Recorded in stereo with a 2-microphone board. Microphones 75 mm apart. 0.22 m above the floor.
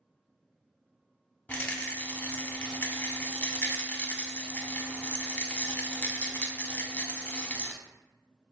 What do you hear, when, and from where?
1.5 s a rattle: 25° left (ahead or behind), 0.6 m